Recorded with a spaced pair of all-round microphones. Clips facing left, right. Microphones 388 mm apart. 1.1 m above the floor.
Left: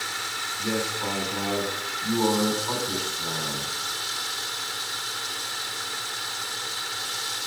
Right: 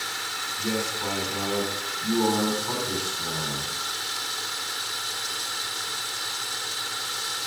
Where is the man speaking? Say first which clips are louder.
Even; 40° right (ahead or behind), 3.5 m.